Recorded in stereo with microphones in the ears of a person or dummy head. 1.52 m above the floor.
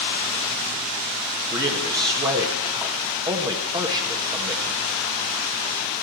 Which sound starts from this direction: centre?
A man speaking, at 1.5 s.